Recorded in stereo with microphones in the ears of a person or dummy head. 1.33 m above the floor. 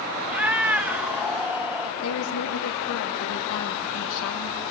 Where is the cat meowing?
5° right (ahead or behind), 0.7 m.